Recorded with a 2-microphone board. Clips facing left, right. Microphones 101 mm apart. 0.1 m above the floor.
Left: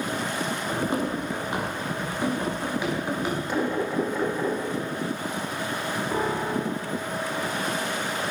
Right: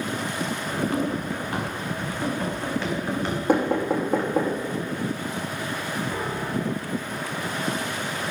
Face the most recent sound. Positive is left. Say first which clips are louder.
# left 2 dB
turn(degrees=30)  # may be behind; listen again after turning